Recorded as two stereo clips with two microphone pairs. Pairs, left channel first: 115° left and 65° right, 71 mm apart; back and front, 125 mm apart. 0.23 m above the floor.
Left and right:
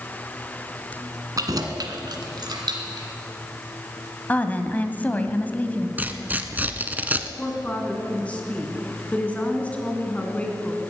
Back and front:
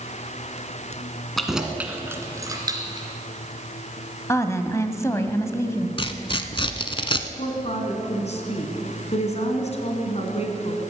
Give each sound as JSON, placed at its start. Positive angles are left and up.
{"t": 1.4, "sound": "keys jangling", "azimuth_deg": -90, "distance_m": 1.6}
{"t": 4.3, "sound": "a woman speaking", "azimuth_deg": 145, "distance_m": 1.0}
{"t": 6.0, "sound": "tearing paper", "azimuth_deg": -130, "distance_m": 0.8}
{"t": 7.4, "sound": "a woman speaking", "azimuth_deg": 180, "distance_m": 2.5}